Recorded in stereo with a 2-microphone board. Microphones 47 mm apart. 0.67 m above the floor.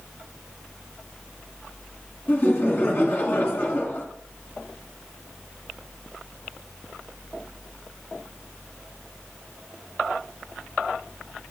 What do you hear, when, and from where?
2.3 s laughter: 40° left (ahead or behind), 1.5 m